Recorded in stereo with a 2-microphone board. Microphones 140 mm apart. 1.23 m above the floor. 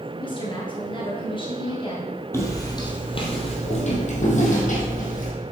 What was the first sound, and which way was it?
A woman speaking, 35° left (ahead or behind).